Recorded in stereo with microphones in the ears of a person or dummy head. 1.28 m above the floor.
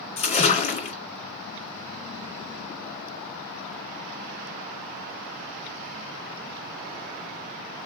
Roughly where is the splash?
Left.